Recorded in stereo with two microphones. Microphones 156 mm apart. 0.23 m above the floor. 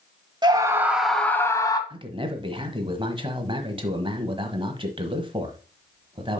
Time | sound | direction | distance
0.4 | a scream | 25° right (ahead or behind) | 1.0 m
1.9 | a man speaking | 35° right (ahead or behind) | 1.2 m